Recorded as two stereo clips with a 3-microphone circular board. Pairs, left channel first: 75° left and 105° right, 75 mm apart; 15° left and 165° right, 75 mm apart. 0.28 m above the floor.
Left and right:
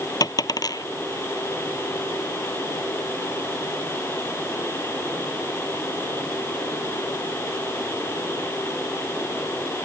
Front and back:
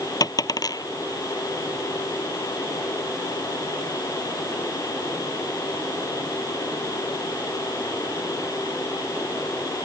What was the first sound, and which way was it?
A dropped coin, 45° left.